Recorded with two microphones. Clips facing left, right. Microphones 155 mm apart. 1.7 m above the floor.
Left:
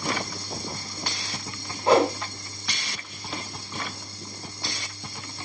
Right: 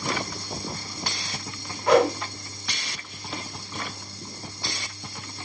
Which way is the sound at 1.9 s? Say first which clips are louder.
Right 1 dB; 30° left (ahead or behind).